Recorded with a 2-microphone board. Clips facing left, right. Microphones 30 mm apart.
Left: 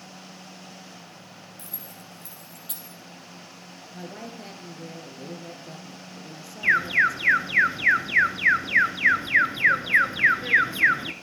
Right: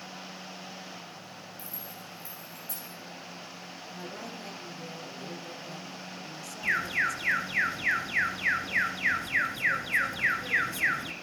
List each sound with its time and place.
1.6 s keys jangling: 70° left (ahead or behind), 3 m
3.9 s a woman speaking: 25° left (ahead or behind), 2.5 m
6.6 s an alarm: 35° left (ahead or behind), 0.9 m